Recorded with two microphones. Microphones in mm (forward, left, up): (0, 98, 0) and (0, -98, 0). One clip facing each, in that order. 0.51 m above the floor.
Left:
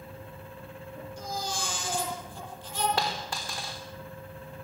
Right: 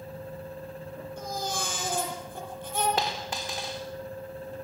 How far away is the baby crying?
About 9 m.